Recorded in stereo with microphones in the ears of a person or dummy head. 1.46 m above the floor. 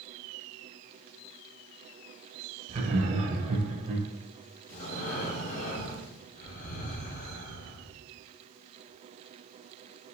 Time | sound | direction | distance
2.7 | laughter | 35° right (ahead or behind) | 0.8 m
4.7 | breathing | 40° left (ahead or behind) | 0.9 m